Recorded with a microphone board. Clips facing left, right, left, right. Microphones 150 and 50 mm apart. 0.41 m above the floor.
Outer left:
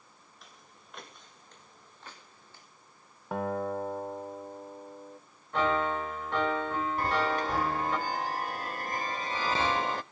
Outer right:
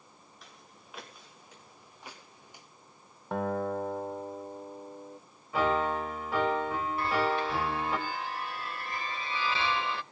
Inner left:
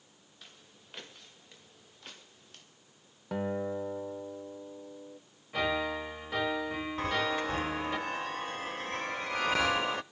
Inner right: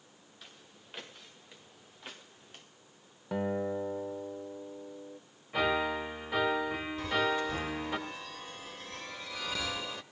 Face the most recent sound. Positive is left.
turn(degrees=45)  # may be behind; listen again after turning